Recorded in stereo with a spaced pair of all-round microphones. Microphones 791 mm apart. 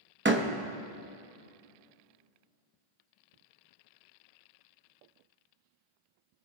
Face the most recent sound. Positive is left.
turn(degrees=-15)  # may be behind; listen again after turning